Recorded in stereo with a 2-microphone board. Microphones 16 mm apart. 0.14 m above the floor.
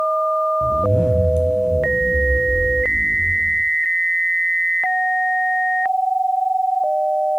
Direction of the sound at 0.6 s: 50° right (ahead or behind).